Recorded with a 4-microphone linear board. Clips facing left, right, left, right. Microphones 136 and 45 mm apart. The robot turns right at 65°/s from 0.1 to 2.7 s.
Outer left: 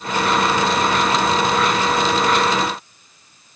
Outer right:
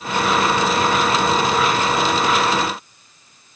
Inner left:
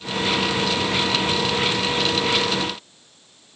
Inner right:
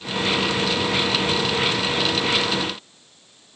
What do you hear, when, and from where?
Only background noise.